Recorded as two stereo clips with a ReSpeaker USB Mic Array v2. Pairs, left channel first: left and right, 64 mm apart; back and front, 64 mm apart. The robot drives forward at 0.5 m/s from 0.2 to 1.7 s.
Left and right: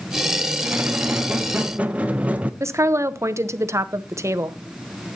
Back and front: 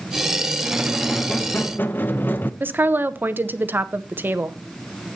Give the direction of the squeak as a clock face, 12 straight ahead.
2 o'clock.